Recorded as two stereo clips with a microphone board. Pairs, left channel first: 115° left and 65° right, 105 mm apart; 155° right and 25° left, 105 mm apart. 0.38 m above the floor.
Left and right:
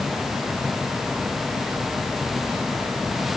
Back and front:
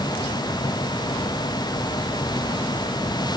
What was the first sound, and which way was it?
Only background noise.